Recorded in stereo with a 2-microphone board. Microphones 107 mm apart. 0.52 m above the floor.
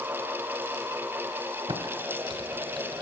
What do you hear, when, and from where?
1.7 s typing on a keyboard: 50° right (ahead or behind), 3 m